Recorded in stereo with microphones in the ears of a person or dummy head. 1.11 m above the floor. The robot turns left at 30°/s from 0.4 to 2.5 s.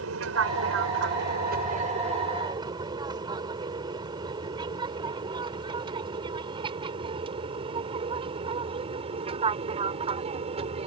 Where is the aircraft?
75° right (ahead or behind); by 10.9 s 35° right (ahead or behind).